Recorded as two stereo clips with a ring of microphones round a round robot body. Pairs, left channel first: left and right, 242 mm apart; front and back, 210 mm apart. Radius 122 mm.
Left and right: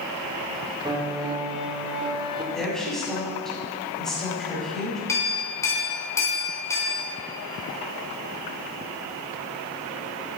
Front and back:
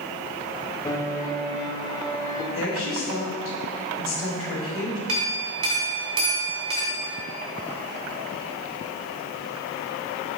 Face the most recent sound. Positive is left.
turn(degrees=170)